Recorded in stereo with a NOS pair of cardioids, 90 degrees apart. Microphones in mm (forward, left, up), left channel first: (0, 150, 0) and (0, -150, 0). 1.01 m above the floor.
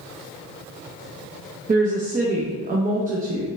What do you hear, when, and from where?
1.7 s a woman speaking: 25° right, 0.7 m